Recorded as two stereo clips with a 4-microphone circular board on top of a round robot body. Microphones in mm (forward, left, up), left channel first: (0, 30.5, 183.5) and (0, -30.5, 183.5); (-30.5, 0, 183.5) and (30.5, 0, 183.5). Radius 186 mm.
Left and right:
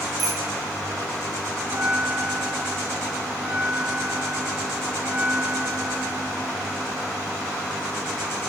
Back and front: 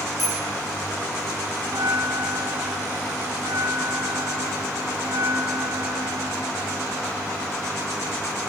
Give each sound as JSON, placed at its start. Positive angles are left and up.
{"t": 0.2, "sound": "a bicycle bell", "azimuth_deg": -95, "distance_m": 8.5}
{"t": 1.6, "sound": "a bell", "azimuth_deg": -25, "distance_m": 1.5}